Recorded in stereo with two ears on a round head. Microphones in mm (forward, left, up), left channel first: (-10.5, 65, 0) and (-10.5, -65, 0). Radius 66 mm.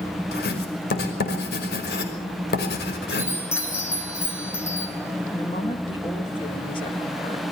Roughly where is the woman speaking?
Left.